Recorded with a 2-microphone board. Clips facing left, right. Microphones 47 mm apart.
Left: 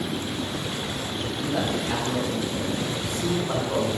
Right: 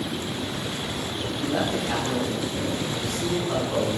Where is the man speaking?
10° right (ahead or behind), 4 m; by 3.9 s 15° left (ahead or behind), 5 m.